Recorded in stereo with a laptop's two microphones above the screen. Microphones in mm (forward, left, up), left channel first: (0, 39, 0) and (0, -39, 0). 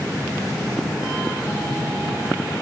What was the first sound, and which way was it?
Only background noise.